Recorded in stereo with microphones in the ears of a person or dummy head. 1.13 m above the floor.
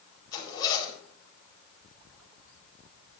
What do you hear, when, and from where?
0.3 s a zipper: 20° left (ahead or behind), 4 m